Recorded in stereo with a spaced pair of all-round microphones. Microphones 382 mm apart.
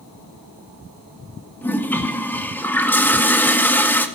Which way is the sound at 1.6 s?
5° left (ahead or behind).